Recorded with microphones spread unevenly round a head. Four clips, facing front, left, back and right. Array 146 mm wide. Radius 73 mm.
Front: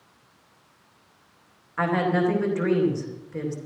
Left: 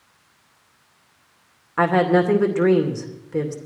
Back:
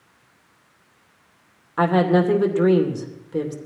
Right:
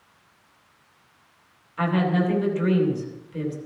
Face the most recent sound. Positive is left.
turn(degrees=125)